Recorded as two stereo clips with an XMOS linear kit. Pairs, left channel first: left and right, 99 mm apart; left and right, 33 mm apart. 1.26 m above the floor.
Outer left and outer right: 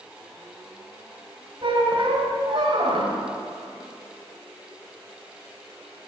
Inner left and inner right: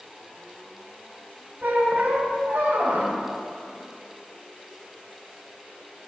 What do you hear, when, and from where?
1.6 s a squeak: 60° right (ahead or behind), 1.7 m